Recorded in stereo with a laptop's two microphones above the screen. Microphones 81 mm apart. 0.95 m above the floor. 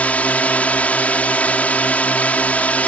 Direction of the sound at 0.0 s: 20° left (ahead or behind).